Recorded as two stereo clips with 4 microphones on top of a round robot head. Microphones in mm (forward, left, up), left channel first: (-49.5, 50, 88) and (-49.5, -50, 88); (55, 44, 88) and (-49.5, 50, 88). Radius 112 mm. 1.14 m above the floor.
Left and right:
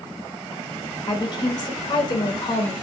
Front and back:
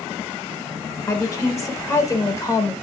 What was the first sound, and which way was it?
A woman speaking, 55° left.